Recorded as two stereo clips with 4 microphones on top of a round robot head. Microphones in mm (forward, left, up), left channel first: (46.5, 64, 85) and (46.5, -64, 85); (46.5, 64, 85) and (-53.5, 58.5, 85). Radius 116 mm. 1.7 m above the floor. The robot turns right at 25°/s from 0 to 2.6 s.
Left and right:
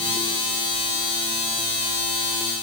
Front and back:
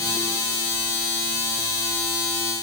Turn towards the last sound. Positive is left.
No sound to turn to.